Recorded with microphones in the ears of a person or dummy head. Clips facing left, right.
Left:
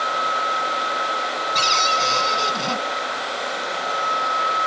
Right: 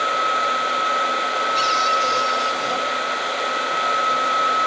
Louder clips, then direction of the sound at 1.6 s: Right 1 dB; 70° left (ahead or behind).